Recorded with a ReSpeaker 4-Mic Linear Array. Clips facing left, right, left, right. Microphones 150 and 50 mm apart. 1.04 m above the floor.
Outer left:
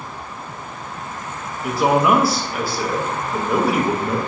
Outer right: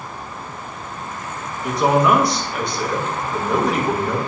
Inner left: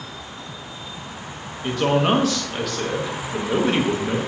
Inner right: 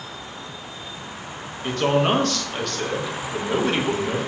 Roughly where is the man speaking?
Centre.